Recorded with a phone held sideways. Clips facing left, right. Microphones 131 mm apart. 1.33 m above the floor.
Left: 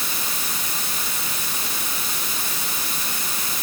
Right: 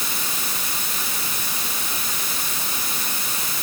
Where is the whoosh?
I don't hear a whoosh.